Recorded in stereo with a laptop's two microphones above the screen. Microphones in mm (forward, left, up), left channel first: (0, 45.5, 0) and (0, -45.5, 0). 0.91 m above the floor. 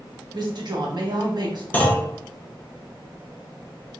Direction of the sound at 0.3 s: 50° right (ahead or behind).